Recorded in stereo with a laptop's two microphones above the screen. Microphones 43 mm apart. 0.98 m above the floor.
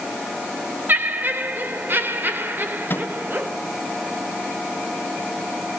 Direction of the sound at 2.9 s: 55° left (ahead or behind).